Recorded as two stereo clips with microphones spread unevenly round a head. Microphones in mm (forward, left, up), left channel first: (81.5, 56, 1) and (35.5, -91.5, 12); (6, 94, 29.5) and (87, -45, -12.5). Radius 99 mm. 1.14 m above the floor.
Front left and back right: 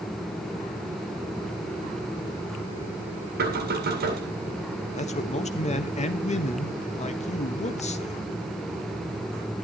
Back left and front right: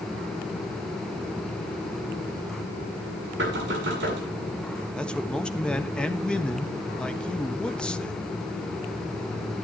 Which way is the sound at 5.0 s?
30° left.